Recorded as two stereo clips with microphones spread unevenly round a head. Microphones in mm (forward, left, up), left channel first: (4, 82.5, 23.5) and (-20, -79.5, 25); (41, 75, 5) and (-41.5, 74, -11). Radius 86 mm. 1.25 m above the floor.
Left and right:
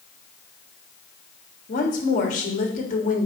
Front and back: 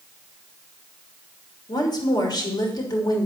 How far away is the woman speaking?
About 3 m.